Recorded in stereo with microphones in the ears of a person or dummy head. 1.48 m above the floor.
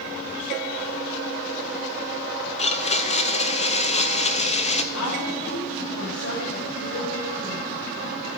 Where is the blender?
35° left (ahead or behind), 0.7 m.